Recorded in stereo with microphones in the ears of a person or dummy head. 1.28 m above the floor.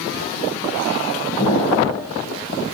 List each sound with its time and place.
1.4 s an explosion: 25° left (ahead or behind), 3.5 m